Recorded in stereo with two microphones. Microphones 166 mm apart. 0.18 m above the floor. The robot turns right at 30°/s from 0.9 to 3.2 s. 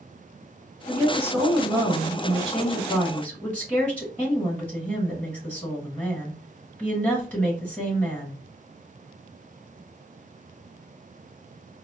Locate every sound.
0.9 s a woman speaking: 20° right (ahead or behind), 1.7 m; by 8.4 s 10° left (ahead or behind), 1.7 m